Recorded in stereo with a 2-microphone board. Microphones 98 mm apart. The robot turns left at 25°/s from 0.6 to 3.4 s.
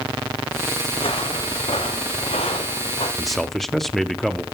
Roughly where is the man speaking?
Centre.